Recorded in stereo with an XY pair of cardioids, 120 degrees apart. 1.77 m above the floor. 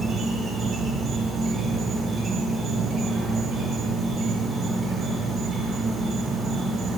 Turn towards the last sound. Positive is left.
turn(degrees=-45)